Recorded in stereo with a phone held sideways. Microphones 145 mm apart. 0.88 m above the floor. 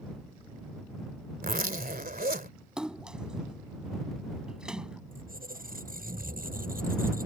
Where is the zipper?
85° right.